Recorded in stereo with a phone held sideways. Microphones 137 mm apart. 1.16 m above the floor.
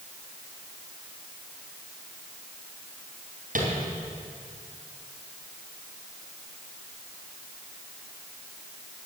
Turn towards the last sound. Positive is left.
turn(degrees=-80)